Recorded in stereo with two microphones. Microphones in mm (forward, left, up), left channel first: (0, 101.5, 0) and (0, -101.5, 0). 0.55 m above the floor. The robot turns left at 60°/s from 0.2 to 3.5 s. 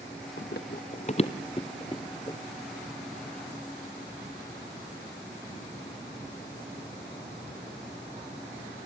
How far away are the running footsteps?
About 1.7 m.